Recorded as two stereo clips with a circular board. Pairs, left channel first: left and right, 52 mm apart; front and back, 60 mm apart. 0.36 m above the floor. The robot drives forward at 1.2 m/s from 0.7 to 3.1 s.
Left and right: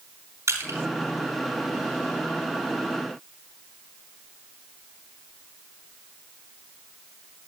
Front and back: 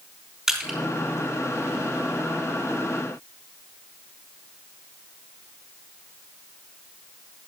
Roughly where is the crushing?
Right.